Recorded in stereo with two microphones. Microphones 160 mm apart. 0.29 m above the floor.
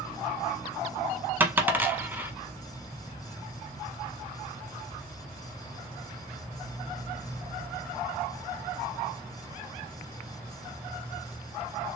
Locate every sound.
1.4 s a dropped coin: 10° right (ahead or behind), 0.8 m